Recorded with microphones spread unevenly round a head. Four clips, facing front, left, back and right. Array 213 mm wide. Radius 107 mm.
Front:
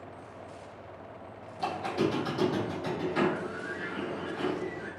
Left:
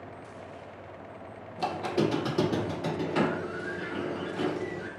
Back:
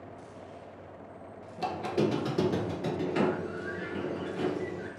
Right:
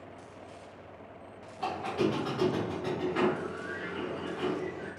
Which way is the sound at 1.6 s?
135° left.